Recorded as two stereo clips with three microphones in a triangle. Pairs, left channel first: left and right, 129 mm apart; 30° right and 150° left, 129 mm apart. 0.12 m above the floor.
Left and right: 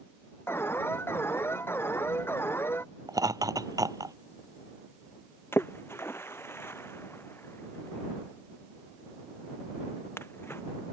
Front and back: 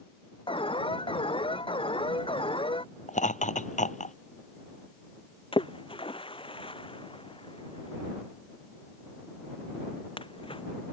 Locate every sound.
0.5 s an alarm: 20° left
3.1 s laughter: 30° right
5.5 s a splash: 20° left